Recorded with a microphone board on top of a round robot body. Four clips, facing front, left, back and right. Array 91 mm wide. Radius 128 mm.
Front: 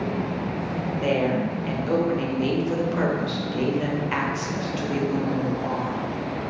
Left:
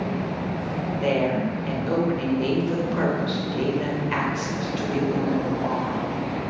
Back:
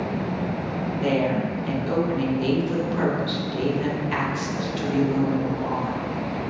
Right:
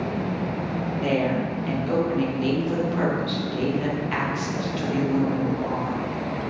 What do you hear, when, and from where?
1.0 s a woman speaking: 10° left, 1.3 m